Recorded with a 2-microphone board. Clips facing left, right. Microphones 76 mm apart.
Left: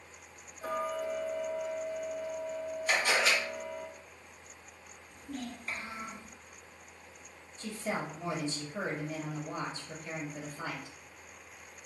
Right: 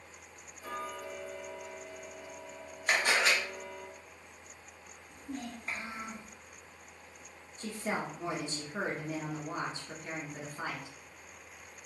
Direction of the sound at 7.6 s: 45° right (ahead or behind).